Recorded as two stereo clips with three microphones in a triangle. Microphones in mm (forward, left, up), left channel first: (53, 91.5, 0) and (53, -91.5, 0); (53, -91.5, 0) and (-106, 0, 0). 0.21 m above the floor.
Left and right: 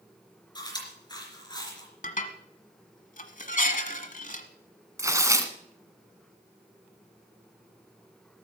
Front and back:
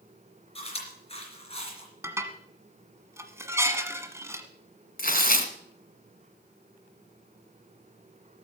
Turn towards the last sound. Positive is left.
turn(degrees=-20)